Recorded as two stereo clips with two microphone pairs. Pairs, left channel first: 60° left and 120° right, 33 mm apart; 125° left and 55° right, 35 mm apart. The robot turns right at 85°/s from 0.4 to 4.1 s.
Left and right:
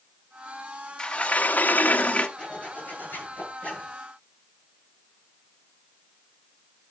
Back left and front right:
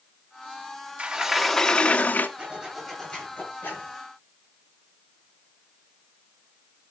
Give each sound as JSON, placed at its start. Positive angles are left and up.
{"t": 1.0, "sound": "a sliding door", "azimuth_deg": -10, "distance_m": 0.9}
{"t": 2.4, "sound": "a zipper", "azimuth_deg": -15, "distance_m": 8.0}